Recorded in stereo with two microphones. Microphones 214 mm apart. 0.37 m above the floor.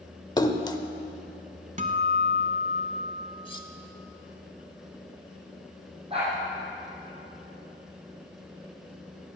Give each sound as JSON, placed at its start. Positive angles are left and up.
{"t": 0.4, "sound": "a splash", "side_deg": 20, "distance_m": 0.7}
{"t": 1.8, "sound": "a guitar", "side_deg": -35, "distance_m": 0.9}
{"t": 3.5, "sound": "cutlery clinking", "side_deg": 25, "distance_m": 0.8}
{"t": 6.1, "sound": "a dog barking", "side_deg": -25, "distance_m": 4.5}